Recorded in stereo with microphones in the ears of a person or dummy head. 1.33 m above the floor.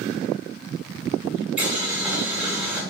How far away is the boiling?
About 1.6 m.